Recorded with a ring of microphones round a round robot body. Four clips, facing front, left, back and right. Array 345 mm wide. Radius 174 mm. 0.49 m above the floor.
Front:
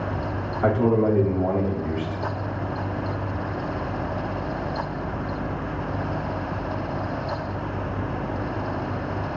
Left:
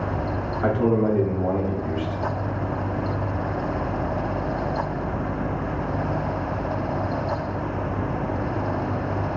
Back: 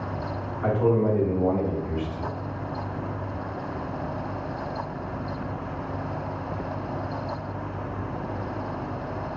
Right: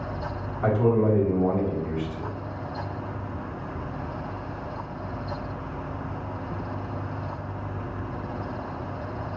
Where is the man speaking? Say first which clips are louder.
Left 1 dB, front 2 dB; 10° left, 1.8 m.